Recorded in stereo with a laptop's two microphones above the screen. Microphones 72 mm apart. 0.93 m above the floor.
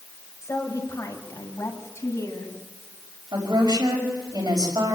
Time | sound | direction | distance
0.4 | a woman speaking | 45° left (ahead or behind) | 4 m
3.3 | a woman speaking | 80° right | 5.5 m